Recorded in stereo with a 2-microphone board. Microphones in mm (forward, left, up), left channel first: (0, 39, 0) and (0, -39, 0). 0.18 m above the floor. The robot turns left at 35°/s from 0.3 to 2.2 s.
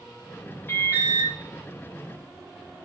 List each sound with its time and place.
0.7 s an alarm: 30° left (ahead or behind), 2 m; by 1.3 s 25° left (ahead or behind), 2 m